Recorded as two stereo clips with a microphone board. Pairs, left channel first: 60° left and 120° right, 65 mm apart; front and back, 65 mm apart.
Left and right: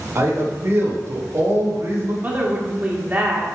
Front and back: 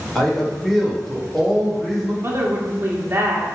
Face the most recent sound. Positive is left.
turn(degrees=-170)